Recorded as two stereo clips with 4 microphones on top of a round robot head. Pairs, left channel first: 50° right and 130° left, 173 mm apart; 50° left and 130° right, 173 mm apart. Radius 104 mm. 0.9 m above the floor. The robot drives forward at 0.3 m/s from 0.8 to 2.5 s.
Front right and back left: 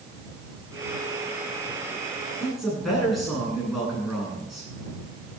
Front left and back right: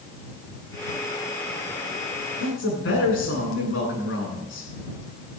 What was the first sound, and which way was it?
A man speaking, 40° left.